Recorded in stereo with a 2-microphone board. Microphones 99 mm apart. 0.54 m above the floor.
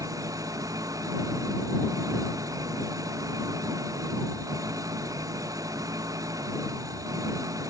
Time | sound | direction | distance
0.0 | an engine running | 35° right (ahead or behind) | ?